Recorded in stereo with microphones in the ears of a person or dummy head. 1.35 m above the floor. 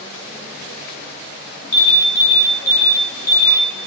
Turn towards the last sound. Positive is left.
turn(degrees=50)  # may be behind; listen again after turning